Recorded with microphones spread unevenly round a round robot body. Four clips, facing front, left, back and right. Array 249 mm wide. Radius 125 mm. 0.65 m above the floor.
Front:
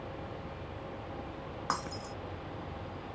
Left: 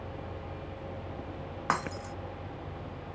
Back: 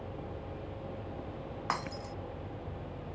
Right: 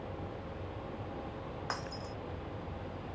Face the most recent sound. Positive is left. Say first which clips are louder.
# left 11 dB, even
turn(degrees=85)